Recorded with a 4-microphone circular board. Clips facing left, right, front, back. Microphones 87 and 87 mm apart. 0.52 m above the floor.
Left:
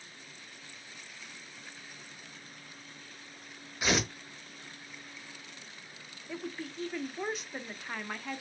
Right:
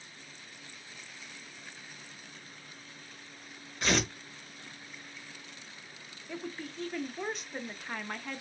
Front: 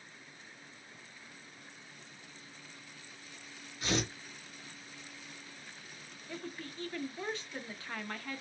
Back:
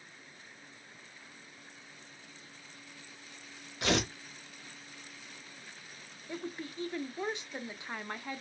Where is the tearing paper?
175° left, 0.9 m.